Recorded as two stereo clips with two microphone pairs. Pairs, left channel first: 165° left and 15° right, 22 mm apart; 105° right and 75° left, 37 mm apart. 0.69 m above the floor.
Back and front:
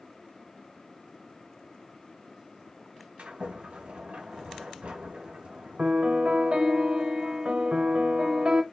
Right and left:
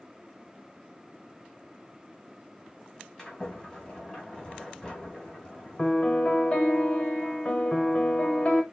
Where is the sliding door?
35° right, 2 m.